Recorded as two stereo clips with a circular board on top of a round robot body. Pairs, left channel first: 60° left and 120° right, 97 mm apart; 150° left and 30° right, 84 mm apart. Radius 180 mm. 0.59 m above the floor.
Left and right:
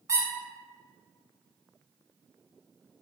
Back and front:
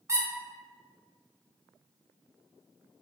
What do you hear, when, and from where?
0.1 s a squeak: 75° right, 0.7 m